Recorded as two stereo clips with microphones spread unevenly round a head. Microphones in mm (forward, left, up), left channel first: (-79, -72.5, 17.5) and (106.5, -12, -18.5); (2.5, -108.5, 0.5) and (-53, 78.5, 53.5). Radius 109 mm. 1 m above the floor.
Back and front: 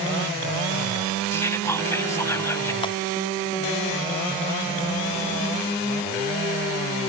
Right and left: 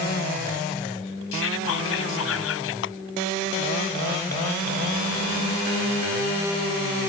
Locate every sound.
1.3 s whispering: 85° right
2.8 s a clap: 95° right